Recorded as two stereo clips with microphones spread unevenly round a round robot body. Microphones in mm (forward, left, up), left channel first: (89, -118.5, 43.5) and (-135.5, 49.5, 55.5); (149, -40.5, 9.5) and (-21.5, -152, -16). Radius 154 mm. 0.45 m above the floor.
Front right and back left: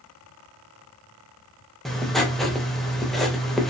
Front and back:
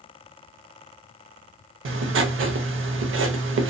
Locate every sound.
1.9 s writing: 125° right, 0.6 m